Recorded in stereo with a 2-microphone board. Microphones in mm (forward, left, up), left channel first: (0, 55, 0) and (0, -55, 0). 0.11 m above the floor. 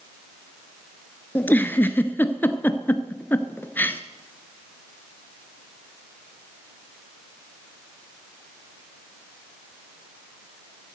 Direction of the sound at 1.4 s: 20° left (ahead or behind).